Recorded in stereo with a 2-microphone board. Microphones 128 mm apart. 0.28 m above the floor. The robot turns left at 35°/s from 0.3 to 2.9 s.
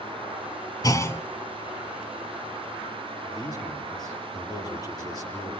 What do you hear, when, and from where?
0.8 s a clunk: 30° left (ahead or behind), 0.9 m; by 1.2 s 20° left (ahead or behind), 0.9 m
3.2 s a man speaking: 35° left (ahead or behind), 8 m